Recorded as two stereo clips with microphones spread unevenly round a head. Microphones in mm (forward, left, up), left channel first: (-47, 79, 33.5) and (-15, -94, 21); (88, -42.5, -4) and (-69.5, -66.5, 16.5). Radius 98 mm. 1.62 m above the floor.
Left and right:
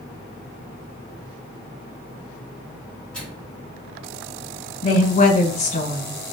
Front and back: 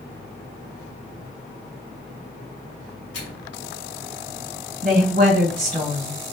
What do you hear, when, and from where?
3.1 s a microwave: 15° left, 1.9 m
4.8 s a woman speaking: 145° left, 1.8 m